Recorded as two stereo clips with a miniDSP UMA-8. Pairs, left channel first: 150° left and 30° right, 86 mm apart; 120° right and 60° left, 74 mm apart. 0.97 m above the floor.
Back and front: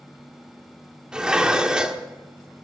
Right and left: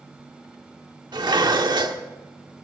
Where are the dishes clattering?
50° left, 1.4 m.